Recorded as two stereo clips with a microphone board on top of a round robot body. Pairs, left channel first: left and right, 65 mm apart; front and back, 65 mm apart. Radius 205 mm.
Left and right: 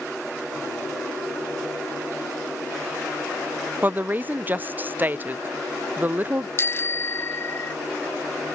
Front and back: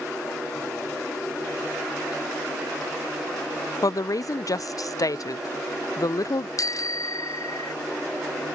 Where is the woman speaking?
25° right.